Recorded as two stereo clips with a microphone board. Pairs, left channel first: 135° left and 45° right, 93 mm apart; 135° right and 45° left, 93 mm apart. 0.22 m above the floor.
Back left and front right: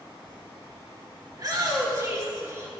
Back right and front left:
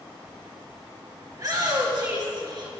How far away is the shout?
About 3.5 m.